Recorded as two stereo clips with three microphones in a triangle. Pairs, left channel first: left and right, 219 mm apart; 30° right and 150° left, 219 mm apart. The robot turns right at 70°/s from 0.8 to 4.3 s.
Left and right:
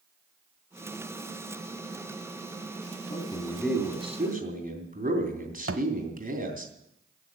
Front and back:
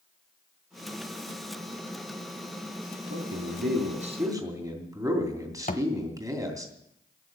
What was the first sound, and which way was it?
A man speaking, 140° left.